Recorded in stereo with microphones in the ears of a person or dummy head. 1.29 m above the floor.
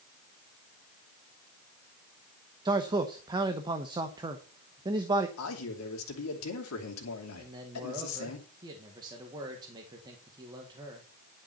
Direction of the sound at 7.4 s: 20° right (ahead or behind).